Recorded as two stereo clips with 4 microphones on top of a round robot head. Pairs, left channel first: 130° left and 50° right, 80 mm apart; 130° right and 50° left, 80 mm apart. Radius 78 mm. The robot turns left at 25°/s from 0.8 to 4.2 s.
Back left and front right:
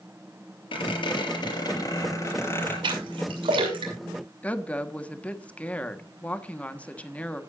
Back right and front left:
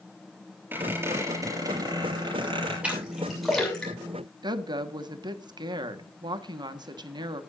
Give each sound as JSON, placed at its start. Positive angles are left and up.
{"t": 0.7, "sound": "a squeak", "azimuth_deg": 115, "distance_m": 5.5}
{"t": 2.8, "sound": "a splash", "azimuth_deg": -25, "distance_m": 6.5}
{"t": 4.4, "sound": "a woman speaking", "azimuth_deg": 60, "distance_m": 1.5}